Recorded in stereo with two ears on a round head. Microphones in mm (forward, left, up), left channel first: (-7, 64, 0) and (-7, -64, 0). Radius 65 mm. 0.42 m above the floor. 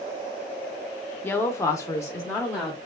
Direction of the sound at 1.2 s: 15° left (ahead or behind).